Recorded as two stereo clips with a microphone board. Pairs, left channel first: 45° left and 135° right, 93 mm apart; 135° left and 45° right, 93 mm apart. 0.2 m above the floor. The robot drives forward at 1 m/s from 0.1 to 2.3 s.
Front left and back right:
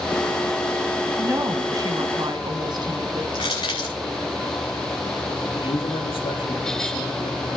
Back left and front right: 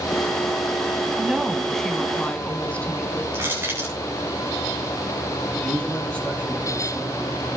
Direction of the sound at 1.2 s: 115° right.